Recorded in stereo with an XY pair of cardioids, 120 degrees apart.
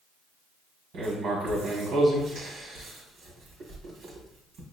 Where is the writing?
65° right, 1.6 m.